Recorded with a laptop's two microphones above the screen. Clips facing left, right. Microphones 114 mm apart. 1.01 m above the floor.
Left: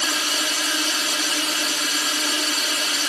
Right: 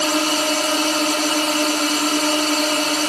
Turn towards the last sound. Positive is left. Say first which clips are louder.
# right 8 dB
turn(degrees=-50)  # may be behind; listen again after turning